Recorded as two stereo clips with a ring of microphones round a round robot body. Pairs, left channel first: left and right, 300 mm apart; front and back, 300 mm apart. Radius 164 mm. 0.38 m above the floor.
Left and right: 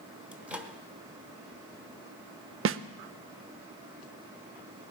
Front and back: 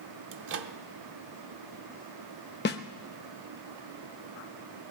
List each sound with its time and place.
0.3 s a microwave: 175° right, 0.8 m
2.6 s a snare drum: 50° right, 0.5 m